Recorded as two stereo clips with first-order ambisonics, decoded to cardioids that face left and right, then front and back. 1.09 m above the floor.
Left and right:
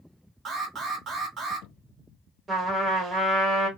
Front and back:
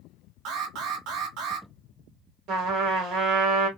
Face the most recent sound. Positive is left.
turn(degrees=-160)